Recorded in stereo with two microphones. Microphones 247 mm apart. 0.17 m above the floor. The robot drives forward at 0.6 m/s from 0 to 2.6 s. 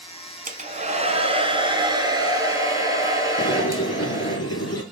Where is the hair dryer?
35° right (ahead or behind), 0.7 m; by 4.4 s 15° right (ahead or behind), 1.7 m.